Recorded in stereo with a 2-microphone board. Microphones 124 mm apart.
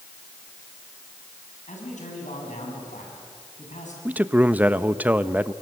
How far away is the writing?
I don't hear writing.